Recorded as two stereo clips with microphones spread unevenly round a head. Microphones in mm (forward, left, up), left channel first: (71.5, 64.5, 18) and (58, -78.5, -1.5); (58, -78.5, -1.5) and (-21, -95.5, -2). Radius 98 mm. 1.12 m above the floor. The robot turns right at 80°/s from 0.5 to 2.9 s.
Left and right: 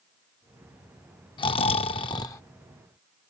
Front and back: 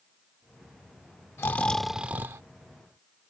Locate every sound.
1.4 s snoring: 65° left; by 2.4 s 145° left